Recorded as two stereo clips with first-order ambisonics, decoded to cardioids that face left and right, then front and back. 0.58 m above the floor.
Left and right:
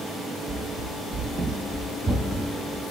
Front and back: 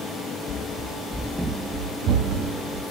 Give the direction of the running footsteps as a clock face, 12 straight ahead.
1 o'clock.